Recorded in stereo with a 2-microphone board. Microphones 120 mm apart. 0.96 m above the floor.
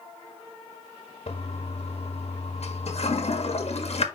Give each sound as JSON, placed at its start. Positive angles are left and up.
{"t": 1.3, "sound": "a toilet flushing", "side_deg": 60, "distance_m": 1.4}